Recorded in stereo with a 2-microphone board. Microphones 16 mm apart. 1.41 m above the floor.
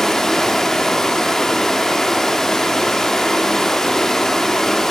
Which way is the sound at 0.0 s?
35° left (ahead or behind).